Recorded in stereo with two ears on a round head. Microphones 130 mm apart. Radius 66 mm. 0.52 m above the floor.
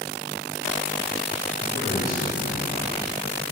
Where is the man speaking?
50° left (ahead or behind), 2.0 m.